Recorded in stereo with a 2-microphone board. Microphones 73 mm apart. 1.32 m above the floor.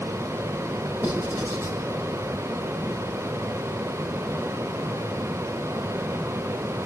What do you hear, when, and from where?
1.0 s writing: 35° right (ahead or behind), 7.5 m